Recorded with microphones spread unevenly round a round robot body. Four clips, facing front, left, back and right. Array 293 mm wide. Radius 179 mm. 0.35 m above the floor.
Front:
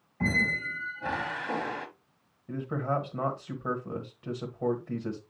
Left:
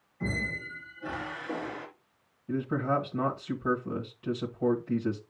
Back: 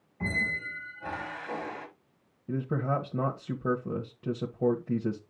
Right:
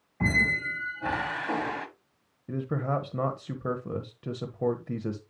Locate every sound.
0.2 s a squeak: 50° right, 1.5 m
2.5 s a man speaking: 155° right, 1.1 m